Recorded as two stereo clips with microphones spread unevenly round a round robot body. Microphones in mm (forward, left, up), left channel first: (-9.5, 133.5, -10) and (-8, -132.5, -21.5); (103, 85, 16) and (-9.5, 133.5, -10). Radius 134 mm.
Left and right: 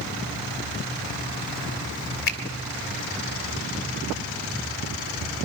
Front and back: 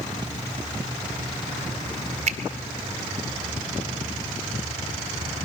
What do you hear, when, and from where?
2.3 s a finger snap: 145° left, 1.3 m